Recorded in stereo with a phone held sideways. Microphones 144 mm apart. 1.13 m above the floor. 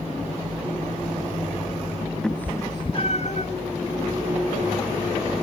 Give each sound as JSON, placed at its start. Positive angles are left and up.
{"t": 2.2, "sound": "a cat meowing", "side_deg": 5, "distance_m": 0.6}